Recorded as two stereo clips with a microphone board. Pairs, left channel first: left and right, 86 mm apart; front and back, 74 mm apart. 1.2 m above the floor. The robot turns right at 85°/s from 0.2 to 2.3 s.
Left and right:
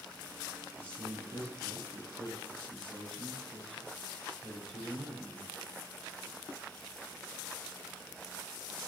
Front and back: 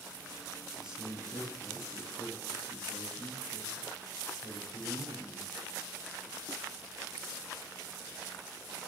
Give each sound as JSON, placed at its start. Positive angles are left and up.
{"t": 0.8, "sound": "a man speaking", "azimuth_deg": 155, "distance_m": 9.5}